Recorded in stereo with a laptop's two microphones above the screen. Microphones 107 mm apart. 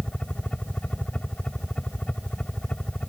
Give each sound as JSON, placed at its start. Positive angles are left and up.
{"t": 0.0, "sound": "a helicopter", "side_deg": 10}